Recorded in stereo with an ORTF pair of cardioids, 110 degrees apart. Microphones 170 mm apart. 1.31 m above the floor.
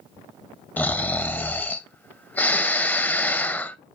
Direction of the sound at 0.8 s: 10° left.